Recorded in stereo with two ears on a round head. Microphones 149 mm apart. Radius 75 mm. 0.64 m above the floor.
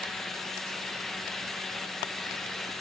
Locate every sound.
Only background noise.